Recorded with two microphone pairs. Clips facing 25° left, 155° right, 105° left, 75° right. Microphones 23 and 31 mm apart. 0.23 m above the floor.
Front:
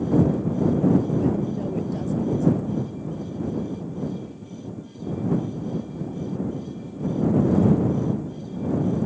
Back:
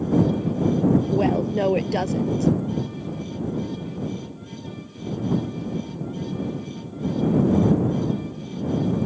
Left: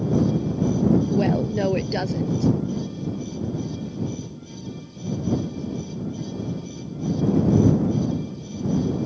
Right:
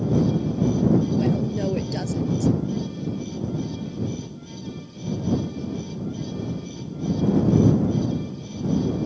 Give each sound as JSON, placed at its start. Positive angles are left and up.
{"t": 1.1, "sound": "a woman speaking", "azimuth_deg": 170}